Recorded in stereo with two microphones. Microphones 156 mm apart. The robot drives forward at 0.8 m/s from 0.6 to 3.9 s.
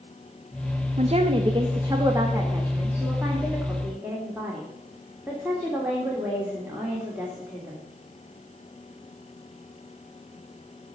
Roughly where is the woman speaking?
Right.